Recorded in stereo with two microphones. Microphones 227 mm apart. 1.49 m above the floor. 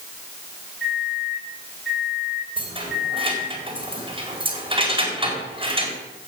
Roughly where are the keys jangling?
Right.